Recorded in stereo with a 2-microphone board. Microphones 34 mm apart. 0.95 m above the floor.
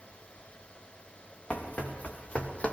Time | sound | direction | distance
1.5 | running footsteps | 40° left (ahead or behind) | 4 m